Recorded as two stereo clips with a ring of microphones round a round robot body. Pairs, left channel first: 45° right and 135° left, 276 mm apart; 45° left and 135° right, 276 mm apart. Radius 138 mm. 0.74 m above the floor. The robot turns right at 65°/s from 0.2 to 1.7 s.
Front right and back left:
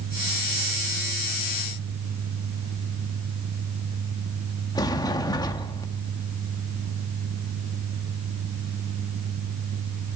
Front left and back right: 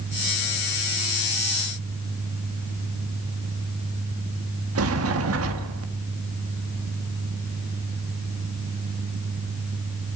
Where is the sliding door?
115° right, 1.4 m.